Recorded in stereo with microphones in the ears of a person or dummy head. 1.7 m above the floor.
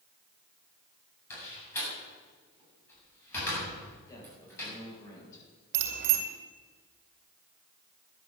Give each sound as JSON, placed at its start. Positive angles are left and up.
{"t": 1.3, "sound": "a door slam", "side_deg": 20, "distance_m": 8.0}
{"t": 4.1, "sound": "a man speaking", "side_deg": 25, "distance_m": 7.5}
{"t": 5.7, "sound": "a bicycle bell", "side_deg": -65, "distance_m": 2.0}